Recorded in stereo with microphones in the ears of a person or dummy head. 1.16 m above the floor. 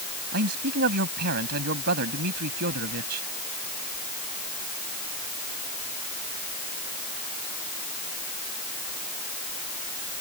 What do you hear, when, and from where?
0.3 s a man speaking: 55° right (ahead or behind)